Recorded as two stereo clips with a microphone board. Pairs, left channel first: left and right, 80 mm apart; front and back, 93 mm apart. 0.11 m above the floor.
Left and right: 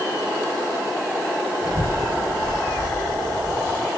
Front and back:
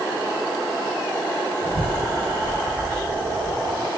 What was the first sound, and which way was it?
A child speaking, 160° right.